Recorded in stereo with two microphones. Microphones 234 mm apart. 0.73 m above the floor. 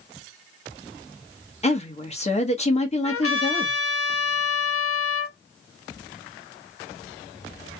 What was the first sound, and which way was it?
A woman speaking, 30° left (ahead or behind).